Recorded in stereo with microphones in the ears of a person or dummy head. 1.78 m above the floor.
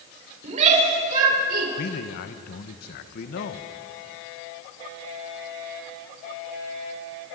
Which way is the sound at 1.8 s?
55° left (ahead or behind).